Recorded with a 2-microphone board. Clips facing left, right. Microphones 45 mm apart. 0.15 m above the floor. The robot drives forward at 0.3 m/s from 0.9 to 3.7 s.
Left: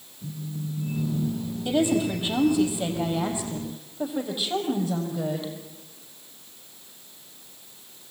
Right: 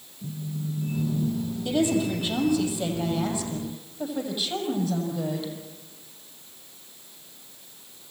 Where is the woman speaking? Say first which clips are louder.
Left 1 dB; 20° left (ahead or behind), 6 m.